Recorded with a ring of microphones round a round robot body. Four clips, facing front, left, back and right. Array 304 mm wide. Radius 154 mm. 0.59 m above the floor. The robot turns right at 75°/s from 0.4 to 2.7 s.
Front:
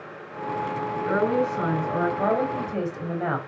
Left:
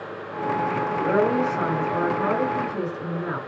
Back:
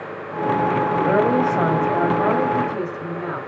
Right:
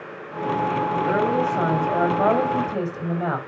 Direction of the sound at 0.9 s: 155° left.